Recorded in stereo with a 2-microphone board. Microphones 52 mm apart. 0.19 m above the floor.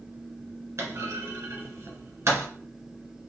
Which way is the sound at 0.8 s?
60° right (ahead or behind).